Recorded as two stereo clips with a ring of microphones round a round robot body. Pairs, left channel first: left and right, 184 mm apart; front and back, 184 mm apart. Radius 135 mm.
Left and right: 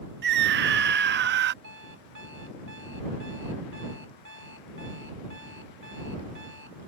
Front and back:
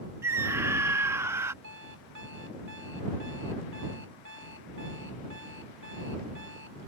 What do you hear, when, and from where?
0.2 s a scream: 105° right
1.6 s an alarm clock: 135° right